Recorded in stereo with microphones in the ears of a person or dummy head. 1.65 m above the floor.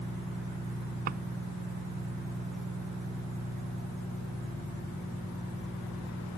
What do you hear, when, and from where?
1.1 s a drawer: 50° right (ahead or behind)